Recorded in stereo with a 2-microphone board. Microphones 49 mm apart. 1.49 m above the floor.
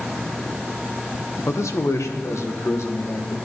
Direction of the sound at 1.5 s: 75° left (ahead or behind).